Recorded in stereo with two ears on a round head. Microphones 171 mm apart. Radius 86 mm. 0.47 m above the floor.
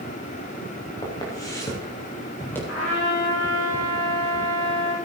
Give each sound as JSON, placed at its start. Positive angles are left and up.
{"t": 1.0, "sound": "footsteps", "side_deg": 25, "distance_m": 4.0}
{"t": 2.7, "sound": "a trumpet", "side_deg": 75, "distance_m": 6.0}